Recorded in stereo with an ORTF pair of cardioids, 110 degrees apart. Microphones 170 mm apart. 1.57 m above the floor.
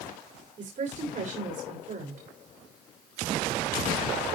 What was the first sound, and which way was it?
A woman speaking, 50° right.